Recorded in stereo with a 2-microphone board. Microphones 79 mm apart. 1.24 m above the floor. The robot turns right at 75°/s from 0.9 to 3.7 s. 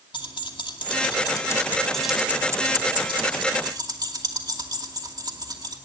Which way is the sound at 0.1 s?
85° left.